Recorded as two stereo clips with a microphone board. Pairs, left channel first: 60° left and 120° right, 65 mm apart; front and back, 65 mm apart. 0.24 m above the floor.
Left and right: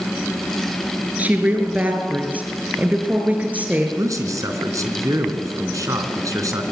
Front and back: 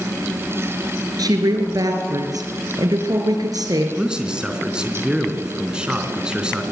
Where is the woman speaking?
175° left, 3.5 m.